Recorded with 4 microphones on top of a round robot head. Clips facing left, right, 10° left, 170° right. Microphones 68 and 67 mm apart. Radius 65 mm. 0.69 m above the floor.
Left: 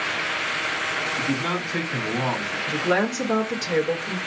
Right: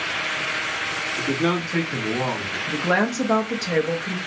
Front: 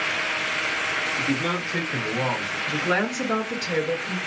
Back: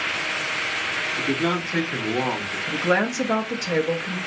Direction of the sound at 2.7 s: 115° right.